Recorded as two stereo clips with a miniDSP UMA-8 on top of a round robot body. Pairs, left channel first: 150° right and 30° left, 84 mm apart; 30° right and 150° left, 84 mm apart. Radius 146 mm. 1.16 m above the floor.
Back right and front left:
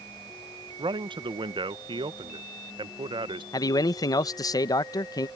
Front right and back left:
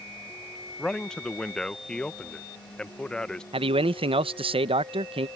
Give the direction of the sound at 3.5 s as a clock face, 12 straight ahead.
7 o'clock.